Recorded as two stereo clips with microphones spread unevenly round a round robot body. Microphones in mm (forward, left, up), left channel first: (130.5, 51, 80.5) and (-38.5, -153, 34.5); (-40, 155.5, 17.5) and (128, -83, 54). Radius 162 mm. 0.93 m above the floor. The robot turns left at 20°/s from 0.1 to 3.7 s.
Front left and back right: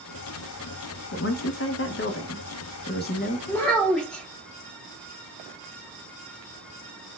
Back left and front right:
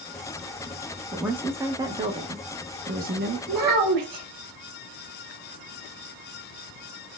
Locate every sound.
1.1 s a woman speaking: 40° left, 0.8 m; by 3.4 s 5° right, 0.8 m
3.5 s a child speaking: 30° right, 1.4 m; by 4.2 s 35° right, 1.4 m